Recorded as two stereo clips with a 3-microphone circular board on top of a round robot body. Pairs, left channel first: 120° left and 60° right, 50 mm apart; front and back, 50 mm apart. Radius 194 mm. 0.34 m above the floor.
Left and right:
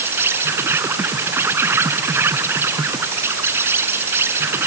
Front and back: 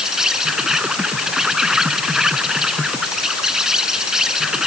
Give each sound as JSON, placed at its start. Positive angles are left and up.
{"t": 0.0, "sound": "an insect", "azimuth_deg": -100}